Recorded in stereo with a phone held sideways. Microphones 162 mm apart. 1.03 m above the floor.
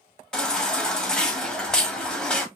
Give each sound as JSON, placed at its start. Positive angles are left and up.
{"t": 0.3, "sound": "a baby crying", "side_deg": 5, "distance_m": 0.7}